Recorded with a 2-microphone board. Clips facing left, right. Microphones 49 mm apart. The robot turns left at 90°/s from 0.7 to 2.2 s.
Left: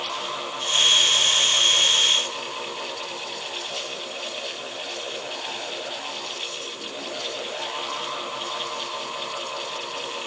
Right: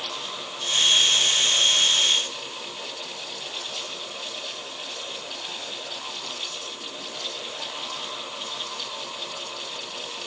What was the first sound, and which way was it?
Only background noise.